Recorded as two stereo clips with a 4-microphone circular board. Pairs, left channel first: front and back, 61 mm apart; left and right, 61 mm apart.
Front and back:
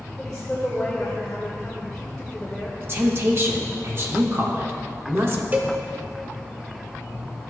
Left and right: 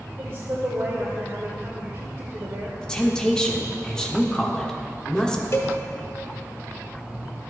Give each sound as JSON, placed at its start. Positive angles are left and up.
{"t": 0.2, "sound": "a woman speaking", "azimuth_deg": -80, "distance_m": 1.4}
{"t": 2.8, "sound": "a woman speaking", "azimuth_deg": 160, "distance_m": 1.1}
{"t": 5.5, "sound": "a cowbell", "azimuth_deg": 120, "distance_m": 0.9}